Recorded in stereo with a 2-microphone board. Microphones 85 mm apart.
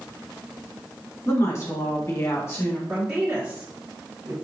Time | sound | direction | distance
1.2 | a woman speaking | 35° left (ahead or behind) | 1.4 m
2.9 | a woman speaking | 20° right (ahead or behind) | 1.6 m